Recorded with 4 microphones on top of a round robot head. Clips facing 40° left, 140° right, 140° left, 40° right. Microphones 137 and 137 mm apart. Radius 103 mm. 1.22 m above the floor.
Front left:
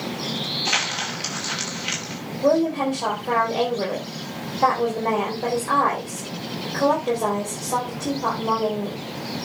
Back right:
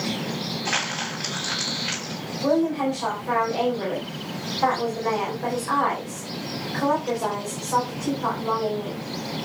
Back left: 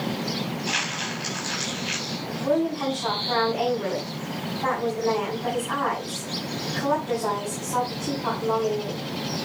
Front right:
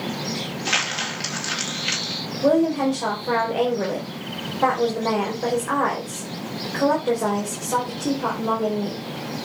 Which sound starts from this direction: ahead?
A woman speaking, at 2.4 s.